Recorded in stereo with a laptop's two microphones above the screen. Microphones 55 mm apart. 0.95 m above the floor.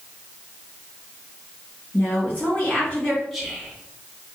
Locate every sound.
1.9 s a woman speaking: 30° left (ahead or behind), 1.4 m
3.3 s whispering: 5° left (ahead or behind), 1.0 m